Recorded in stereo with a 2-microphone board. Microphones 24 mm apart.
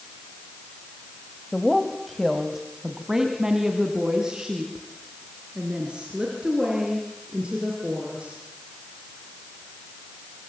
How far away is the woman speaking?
About 1.8 m.